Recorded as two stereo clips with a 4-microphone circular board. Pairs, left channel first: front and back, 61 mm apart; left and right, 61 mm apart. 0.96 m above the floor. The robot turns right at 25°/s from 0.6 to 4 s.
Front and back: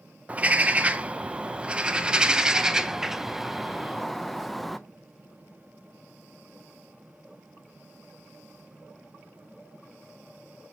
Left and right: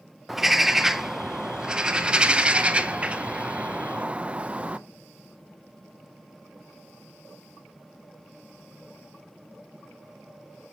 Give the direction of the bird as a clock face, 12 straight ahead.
6 o'clock.